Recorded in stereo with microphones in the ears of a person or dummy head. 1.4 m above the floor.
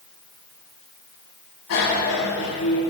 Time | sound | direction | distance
1.7 | a bicycle bell | 80° left | 7.5 m